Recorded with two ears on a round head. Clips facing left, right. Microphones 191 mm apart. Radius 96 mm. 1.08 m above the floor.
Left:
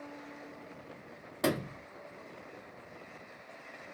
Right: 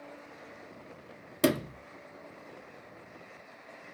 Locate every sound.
1.4 s a sliding door: 40° right (ahead or behind), 0.8 m